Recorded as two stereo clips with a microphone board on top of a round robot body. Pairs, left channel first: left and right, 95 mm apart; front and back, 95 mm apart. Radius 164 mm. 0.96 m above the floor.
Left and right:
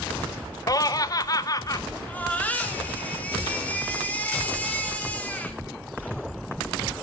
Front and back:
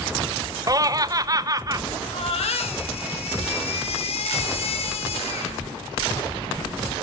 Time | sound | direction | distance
0.7 | laughter | 135° left | 0.9 m
2.1 | a baby crying | 15° left | 2 m